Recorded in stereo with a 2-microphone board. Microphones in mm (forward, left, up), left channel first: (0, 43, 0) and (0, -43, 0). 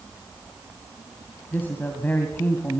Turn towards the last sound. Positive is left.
turn(degrees=20)  # may be behind; listen again after turning